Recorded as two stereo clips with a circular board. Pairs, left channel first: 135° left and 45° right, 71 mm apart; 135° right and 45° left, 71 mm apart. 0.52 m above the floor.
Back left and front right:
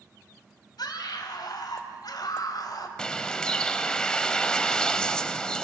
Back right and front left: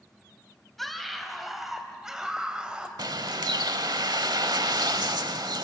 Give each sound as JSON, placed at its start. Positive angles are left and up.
{"t": 0.8, "sound": "a scream", "azimuth_deg": 135, "distance_m": 3.5}
{"t": 3.0, "sound": "a bird", "azimuth_deg": 55, "distance_m": 0.9}